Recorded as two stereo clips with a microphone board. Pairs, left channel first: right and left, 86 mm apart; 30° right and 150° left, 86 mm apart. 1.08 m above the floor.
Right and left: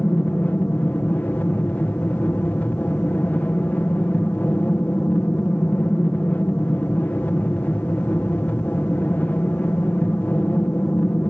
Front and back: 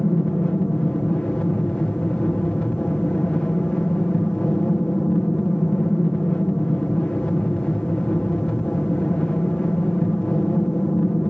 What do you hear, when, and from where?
0.0 s an aircraft: 85° right